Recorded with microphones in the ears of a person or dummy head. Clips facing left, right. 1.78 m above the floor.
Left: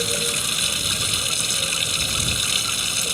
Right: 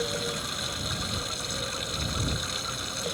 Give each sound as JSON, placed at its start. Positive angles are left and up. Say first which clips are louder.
{"t": 0.0, "sound": "running water", "louder": "left 3 dB", "side_deg": 45}